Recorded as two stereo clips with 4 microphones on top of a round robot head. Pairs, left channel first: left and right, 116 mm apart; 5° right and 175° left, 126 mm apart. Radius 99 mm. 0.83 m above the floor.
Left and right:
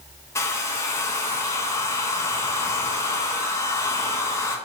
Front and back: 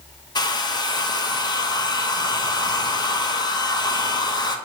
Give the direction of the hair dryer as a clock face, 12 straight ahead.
11 o'clock.